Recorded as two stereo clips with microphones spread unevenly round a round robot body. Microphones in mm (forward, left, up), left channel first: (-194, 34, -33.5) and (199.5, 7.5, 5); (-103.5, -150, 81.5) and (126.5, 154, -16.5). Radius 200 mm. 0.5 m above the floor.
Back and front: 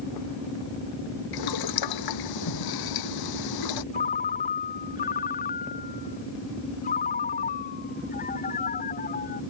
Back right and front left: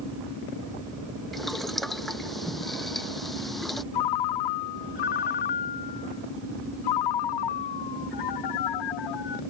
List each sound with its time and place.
1.3 s boiling: 145° left
3.9 s a ringtone: 125° right